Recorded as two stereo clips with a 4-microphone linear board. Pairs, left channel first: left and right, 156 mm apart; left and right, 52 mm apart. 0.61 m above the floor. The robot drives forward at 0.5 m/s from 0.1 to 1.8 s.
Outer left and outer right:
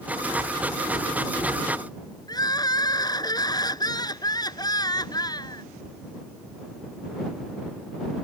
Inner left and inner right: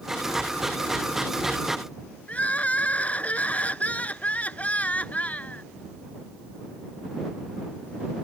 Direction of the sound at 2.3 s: 25° left (ahead or behind).